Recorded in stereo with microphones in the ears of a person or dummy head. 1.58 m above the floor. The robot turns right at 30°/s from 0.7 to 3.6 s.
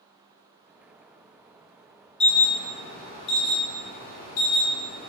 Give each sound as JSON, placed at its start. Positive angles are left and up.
{"t": 2.2, "sound": "an alarm", "azimuth_deg": 15, "distance_m": 0.8}